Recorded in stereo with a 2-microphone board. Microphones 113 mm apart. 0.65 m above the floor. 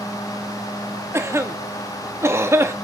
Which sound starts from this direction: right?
A cough, at 1.1 s.